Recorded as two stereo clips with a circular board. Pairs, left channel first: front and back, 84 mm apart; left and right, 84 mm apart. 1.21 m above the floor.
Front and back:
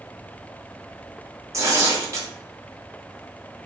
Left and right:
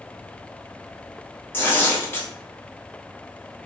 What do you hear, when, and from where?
1.5 s tearing paper: 145° left, 0.8 m